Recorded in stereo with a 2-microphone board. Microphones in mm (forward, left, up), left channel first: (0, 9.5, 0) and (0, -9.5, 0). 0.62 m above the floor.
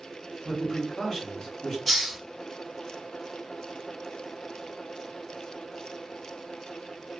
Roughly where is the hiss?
Centre.